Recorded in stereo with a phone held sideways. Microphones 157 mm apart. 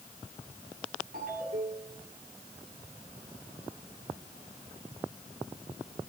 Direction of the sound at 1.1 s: 80° right.